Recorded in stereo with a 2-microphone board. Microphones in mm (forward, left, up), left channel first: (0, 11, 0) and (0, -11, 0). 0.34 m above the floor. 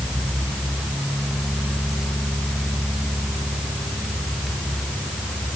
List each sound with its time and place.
Only background noise.